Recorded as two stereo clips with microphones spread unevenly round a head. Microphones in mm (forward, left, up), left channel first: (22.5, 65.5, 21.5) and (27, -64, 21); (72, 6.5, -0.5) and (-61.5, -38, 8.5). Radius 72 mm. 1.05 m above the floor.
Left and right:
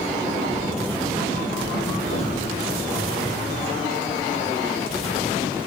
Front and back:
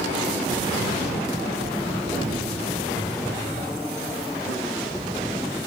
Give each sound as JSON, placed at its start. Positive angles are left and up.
{"t": 2.1, "sound": "an explosion", "azimuth_deg": 110, "distance_m": 3.0}